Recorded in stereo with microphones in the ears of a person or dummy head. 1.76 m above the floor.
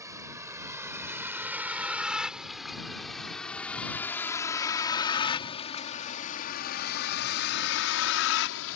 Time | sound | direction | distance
0.0 | a vehicle | 15° right (ahead or behind) | ?